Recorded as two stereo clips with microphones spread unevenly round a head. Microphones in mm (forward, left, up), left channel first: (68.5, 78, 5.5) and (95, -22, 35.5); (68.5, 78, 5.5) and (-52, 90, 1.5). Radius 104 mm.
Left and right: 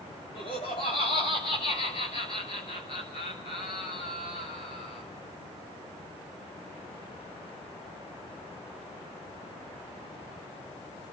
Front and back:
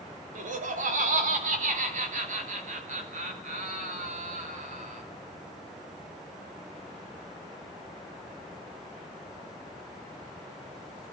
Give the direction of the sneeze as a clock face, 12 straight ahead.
I don't hear a sneeze.